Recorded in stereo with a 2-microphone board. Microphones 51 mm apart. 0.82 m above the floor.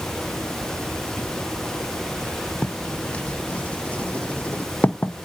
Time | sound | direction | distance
2.6 | writing | 30° left (ahead or behind) | 0.5 m